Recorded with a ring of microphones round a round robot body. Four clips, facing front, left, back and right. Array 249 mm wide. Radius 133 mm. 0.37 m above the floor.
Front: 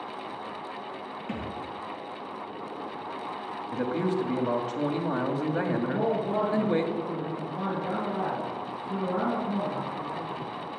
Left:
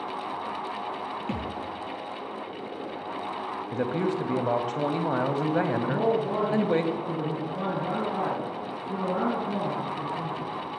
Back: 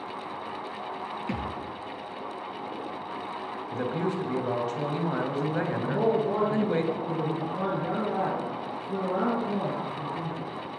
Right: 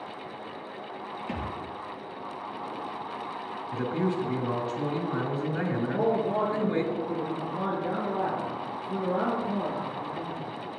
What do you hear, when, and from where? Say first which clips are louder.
1.3 s a thud: even, back 1 dB; 125° left, 2.5 m
3.7 s a man speaking: left 1 dB, front 2 dB; 85° left, 2 m
5.8 s a man speaking: left 1 dB, back 2 dB; 120° left, 4.5 m